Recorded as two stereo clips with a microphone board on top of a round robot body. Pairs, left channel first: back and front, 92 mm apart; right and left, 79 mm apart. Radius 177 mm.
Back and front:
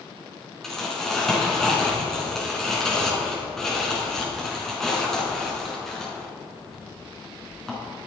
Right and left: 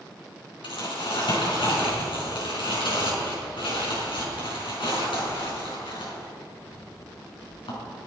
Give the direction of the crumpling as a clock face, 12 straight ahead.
3 o'clock.